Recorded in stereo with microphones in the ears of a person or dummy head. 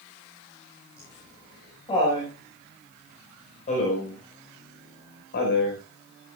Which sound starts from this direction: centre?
Laughter, at 1.0 s.